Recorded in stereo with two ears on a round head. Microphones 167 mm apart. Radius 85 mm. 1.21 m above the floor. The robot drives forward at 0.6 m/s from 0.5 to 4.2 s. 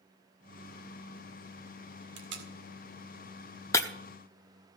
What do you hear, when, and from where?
2.2 s tape being pulled: 70° right (ahead or behind), 2 m
3.7 s breaking glass: 15° left (ahead or behind), 0.8 m; by 3.9 s 20° left (ahead or behind), 0.7 m